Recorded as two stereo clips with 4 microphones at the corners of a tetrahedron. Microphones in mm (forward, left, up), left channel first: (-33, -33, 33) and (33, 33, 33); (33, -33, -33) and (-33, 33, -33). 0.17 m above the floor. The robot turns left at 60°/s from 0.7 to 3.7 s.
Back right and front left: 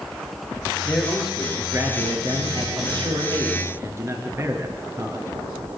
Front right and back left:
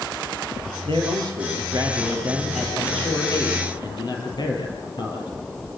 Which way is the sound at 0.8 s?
155° left.